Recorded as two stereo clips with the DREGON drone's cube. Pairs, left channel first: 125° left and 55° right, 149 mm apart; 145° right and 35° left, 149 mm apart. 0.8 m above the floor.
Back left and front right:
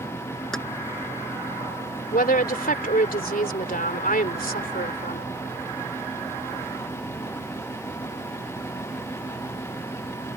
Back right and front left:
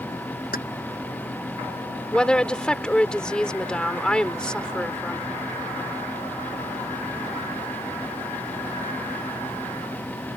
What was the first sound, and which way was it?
Keys jangling, 150° right.